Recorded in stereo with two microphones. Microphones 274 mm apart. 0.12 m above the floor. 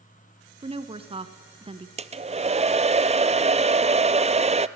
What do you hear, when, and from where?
0.6 s a woman speaking: 20° right (ahead or behind), 1.1 m
2.0 s a hair dryer: 25° right (ahead or behind), 0.6 m